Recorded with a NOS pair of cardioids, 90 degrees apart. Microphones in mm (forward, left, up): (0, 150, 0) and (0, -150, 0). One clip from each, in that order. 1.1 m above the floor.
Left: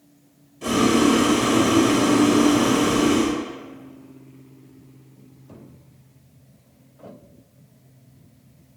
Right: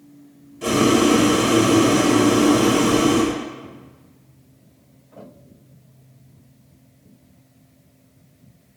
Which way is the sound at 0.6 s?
20° right.